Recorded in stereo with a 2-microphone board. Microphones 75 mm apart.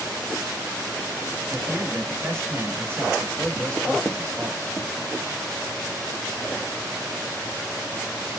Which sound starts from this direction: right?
A man speaking, at 1.5 s.